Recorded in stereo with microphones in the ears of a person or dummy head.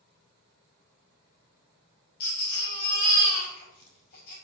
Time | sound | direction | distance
2.2 | a baby crying | 55° left (ahead or behind) | 4 m